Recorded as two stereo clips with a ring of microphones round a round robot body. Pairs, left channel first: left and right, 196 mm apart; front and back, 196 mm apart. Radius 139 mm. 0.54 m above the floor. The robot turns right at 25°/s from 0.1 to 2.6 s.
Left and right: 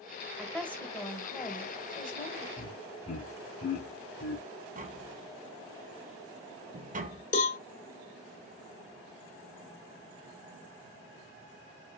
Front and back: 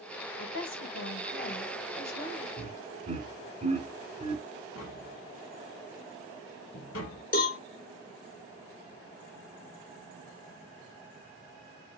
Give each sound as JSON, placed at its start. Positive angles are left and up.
{"t": 0.4, "sound": "a woman speaking", "azimuth_deg": 0, "distance_m": 2.0}
{"t": 2.6, "sound": "laughter", "azimuth_deg": 125, "distance_m": 3.0}
{"t": 4.8, "sound": "tapping", "azimuth_deg": -40, "distance_m": 1.0}
{"t": 7.3, "sound": "a cowbell", "azimuth_deg": 40, "distance_m": 1.7}